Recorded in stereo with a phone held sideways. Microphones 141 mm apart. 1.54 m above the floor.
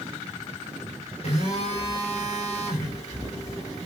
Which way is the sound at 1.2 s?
50° left (ahead or behind).